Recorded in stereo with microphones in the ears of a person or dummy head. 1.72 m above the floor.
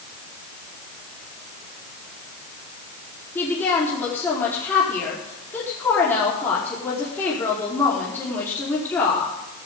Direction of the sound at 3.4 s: 10° left (ahead or behind).